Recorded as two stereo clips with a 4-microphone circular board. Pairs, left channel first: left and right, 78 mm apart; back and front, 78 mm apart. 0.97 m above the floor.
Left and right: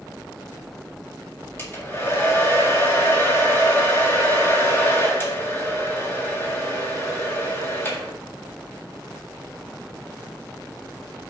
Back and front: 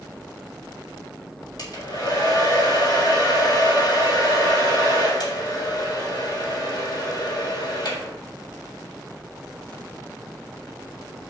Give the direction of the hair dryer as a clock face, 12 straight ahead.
7 o'clock.